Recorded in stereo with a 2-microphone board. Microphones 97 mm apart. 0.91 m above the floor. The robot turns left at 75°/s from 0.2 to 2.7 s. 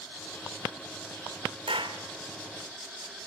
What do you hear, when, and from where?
1.7 s a clap: 80° right, 3 m; by 2.0 s 70° right (ahead or behind), 3 m